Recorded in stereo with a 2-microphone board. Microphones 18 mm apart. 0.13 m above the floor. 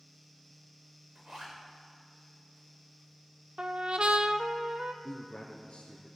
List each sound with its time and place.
1.1 s a zipper: 50° right (ahead or behind), 4.5 m
3.6 s a trumpet: 70° right (ahead or behind), 0.6 m
5.0 s a man speaking: 60° left (ahead or behind), 2.0 m